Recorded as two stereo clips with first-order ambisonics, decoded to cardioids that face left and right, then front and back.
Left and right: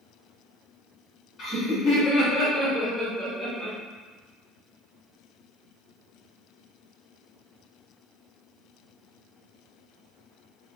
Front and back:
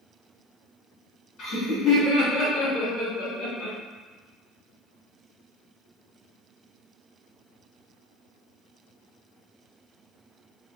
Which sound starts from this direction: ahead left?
Laughter, at 1.4 s.